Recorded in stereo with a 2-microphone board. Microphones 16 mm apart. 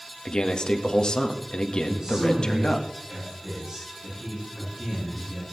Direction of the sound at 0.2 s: 55° left (ahead or behind).